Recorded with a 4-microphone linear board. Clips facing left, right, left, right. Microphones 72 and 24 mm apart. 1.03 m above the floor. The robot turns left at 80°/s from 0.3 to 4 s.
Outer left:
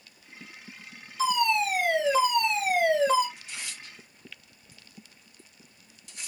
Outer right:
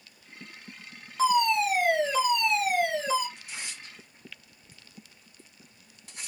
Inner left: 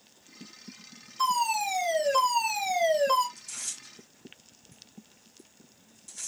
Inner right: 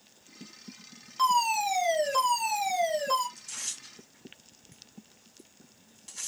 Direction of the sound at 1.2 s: 115° right.